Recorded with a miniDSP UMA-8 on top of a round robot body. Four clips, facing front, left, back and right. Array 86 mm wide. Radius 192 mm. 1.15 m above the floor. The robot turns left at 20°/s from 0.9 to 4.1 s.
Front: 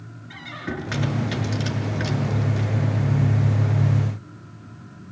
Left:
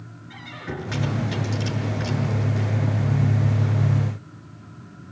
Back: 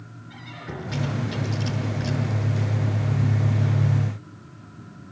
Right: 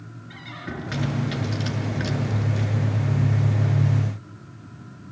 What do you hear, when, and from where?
0.3 s a squeak: 10° right, 7 m; by 2.7 s 45° right, 7 m